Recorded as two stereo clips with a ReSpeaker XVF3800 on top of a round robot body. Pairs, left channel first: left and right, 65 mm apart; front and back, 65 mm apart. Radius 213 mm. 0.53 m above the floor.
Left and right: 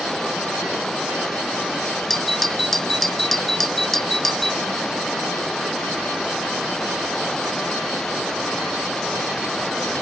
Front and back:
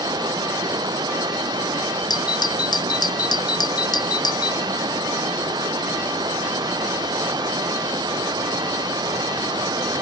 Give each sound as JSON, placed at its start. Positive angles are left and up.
{"t": 0.0, "sound": "running water", "azimuth_deg": 175}
{"t": 2.1, "sound": "a doorbell", "azimuth_deg": 5}